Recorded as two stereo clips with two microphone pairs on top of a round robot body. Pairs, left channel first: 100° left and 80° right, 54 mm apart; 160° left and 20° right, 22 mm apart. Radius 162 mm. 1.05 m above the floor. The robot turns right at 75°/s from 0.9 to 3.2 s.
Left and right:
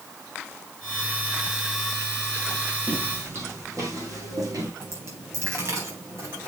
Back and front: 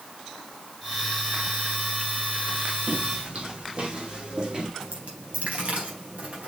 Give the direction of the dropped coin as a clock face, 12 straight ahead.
1 o'clock.